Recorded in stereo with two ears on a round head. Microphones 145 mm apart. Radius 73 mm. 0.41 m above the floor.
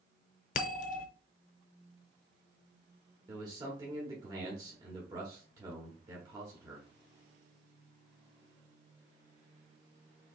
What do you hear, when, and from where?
0.6 s a bell: 50° left (ahead or behind), 0.6 m
3.3 s a man speaking: 25° right (ahead or behind), 1.3 m